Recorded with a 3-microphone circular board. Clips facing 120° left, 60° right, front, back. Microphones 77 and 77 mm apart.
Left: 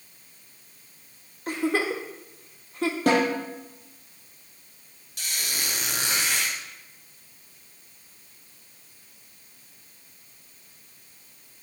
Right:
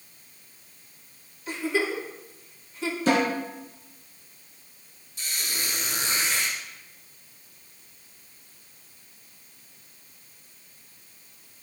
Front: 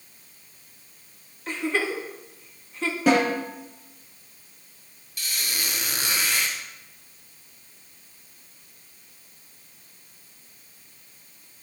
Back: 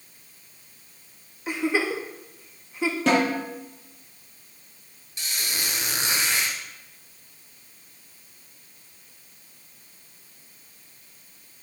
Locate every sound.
1.5 s a giggle: 105° left, 1.5 m
3.1 s a snare drum: 80° left, 6.5 m
5.2 s a squeak: 115° left, 3 m